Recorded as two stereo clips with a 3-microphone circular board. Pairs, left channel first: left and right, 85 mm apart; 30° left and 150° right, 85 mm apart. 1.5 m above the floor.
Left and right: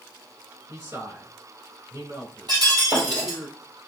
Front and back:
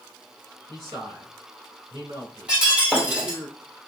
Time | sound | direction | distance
0.7 | a man speaking | 130° right | 2.5 m
2.5 | breaking glass | 75° right | 2.5 m